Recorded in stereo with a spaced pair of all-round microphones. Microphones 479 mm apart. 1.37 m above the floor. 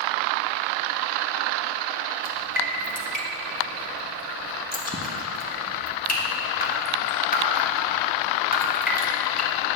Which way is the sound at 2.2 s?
20° left (ahead or behind).